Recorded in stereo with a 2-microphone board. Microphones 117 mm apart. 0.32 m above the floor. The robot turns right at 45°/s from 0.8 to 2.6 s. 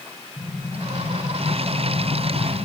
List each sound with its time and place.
0.4 s an explosion: 5° left, 6 m; by 2.6 s 85° left, 6 m